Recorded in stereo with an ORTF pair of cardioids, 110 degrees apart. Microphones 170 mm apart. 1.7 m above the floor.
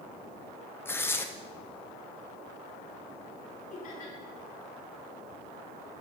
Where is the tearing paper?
15° left, 0.8 m.